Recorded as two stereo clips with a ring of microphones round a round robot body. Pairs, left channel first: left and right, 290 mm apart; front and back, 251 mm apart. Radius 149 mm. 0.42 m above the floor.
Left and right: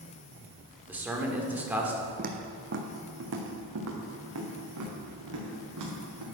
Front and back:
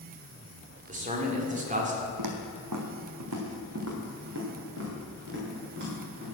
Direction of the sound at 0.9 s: 170° right.